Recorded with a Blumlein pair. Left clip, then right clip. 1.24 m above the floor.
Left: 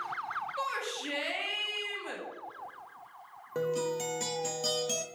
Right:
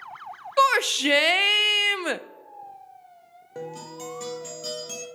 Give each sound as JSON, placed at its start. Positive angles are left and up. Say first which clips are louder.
{"t": 0.6, "sound": "a shout", "louder": "right 20 dB", "azimuth_deg": -55, "distance_m": 0.5}
{"t": 3.5, "sound": "a guitar", "louder": "left 5 dB", "azimuth_deg": 10, "distance_m": 1.1}